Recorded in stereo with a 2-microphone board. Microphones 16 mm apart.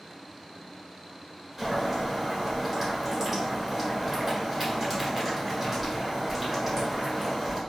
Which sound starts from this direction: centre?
Boiling, at 1.6 s.